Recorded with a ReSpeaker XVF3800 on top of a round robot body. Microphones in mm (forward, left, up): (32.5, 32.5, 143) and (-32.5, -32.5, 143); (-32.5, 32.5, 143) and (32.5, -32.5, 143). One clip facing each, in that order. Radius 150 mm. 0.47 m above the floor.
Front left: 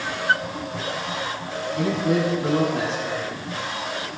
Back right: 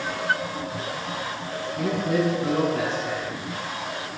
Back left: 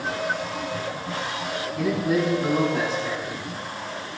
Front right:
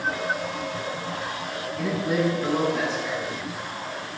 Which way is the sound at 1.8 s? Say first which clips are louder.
Front left 2 dB, back left 2 dB; 50° left.